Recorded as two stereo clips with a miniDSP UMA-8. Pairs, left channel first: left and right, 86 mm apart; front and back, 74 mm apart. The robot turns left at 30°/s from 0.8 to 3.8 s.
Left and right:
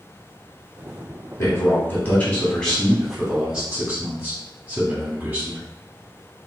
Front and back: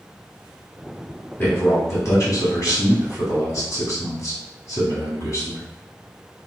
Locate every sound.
1.4 s a man speaking: 50° left, 1.4 m; by 5.7 s 20° right, 1.4 m